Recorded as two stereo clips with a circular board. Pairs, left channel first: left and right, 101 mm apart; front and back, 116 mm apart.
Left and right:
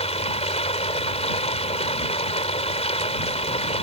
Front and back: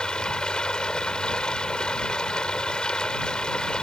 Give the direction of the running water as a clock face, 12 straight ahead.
9 o'clock.